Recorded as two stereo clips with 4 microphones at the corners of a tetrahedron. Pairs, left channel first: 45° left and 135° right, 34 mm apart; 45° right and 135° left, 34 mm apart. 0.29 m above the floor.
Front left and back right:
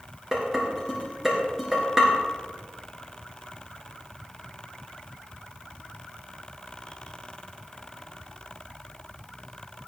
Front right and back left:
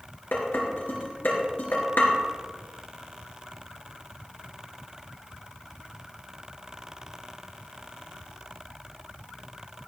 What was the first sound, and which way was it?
Dishes clattering, 55° right.